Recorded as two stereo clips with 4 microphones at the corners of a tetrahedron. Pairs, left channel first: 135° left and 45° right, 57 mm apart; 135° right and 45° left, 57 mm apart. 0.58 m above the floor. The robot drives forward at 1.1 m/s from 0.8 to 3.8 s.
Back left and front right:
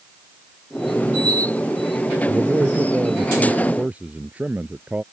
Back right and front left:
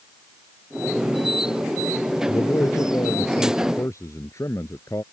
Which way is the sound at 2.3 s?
95° right.